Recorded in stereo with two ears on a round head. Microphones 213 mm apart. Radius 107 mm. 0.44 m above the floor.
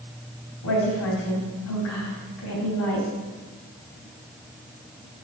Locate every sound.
0.6 s a woman speaking: 65° left (ahead or behind), 3 m